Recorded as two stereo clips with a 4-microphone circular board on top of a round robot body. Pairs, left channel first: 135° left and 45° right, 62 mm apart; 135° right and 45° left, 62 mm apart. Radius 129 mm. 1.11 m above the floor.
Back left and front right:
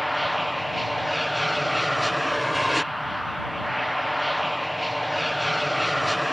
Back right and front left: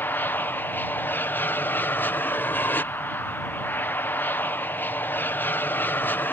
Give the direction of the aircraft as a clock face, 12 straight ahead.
4 o'clock.